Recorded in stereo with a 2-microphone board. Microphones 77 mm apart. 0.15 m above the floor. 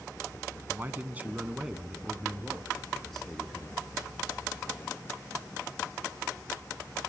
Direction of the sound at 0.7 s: 30° right (ahead or behind).